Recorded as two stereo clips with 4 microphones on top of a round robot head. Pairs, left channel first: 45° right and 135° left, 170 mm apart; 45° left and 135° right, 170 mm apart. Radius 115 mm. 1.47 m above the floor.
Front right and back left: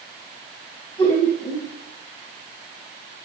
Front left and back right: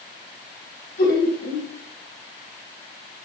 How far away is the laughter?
About 2.5 m.